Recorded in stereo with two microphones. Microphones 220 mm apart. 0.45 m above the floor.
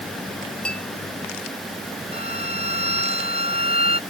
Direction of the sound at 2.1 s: 45° left (ahead or behind).